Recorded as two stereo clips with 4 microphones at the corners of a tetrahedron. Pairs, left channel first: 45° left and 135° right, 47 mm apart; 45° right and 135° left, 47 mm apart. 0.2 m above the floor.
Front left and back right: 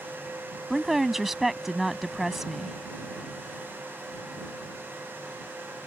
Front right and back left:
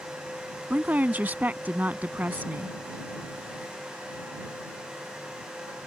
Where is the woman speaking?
145° left.